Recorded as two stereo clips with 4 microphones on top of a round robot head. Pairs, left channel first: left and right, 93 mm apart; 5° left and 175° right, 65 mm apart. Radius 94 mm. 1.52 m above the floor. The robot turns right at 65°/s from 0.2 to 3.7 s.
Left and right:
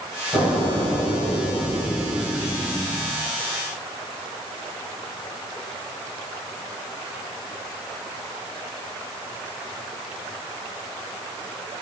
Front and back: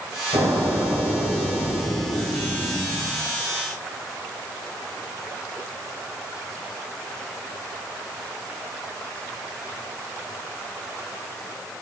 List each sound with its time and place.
0.3 s an explosion: 160° right, 1.6 m; by 3.2 s 30° left, 1.6 m